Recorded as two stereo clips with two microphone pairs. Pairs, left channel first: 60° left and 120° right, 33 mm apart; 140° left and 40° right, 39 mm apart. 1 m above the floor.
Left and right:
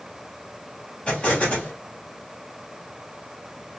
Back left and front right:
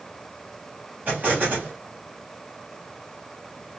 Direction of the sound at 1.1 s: 5° left.